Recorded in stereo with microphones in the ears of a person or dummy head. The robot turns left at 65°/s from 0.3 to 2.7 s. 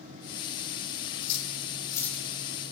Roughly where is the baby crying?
No baby crying in this recording.